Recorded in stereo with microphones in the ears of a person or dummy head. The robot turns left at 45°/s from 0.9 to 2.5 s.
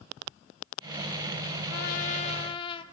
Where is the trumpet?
65° left, 2 m; by 2.8 s 30° left, 2 m.